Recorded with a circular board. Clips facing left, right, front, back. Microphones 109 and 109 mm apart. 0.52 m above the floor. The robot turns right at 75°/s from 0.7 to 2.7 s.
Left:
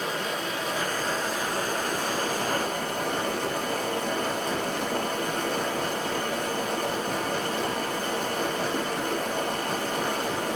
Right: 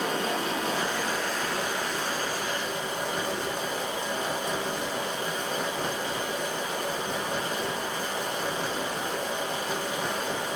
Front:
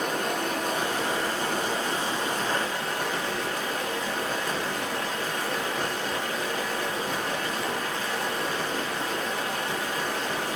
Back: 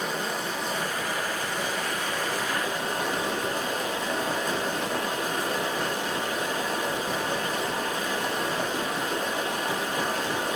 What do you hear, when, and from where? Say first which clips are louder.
0.0 s running water: right 2 dB, front 2 dB; 40° right, 9 m; by 10.6 s 110° left, 9 m